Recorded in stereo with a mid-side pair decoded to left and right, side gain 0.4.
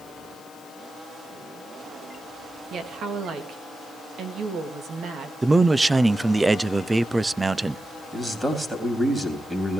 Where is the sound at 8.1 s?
10° right, 3.5 m.